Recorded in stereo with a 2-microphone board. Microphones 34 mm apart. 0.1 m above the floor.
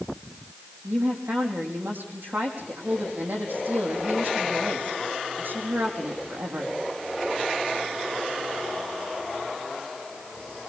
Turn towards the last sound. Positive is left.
turn(degrees=-65)  # may be behind; listen again after turning